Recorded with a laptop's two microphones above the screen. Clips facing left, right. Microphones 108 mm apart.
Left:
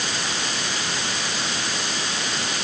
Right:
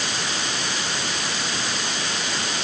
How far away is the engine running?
No engine running in this recording.